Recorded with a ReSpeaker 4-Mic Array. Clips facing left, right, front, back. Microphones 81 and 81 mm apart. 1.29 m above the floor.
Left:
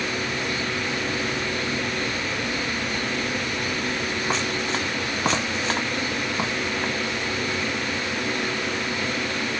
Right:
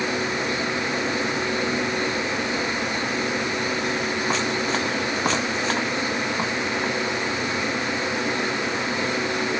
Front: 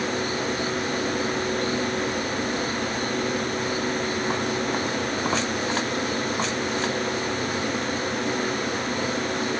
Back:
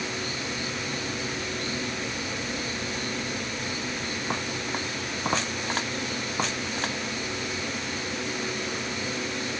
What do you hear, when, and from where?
Only background noise.